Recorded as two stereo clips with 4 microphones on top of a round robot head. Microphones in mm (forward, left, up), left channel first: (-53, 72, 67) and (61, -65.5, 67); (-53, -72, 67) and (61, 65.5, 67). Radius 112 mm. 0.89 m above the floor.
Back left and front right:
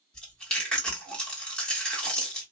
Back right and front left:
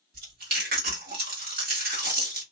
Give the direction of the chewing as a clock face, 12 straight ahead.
10 o'clock.